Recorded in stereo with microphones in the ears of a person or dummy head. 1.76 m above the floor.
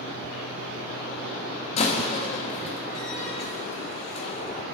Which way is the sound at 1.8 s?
40° left (ahead or behind).